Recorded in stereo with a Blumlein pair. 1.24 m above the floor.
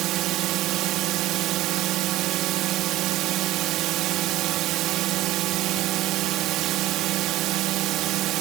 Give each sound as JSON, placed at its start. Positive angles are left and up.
{"t": 0.0, "sound": "a drone", "azimuth_deg": -35}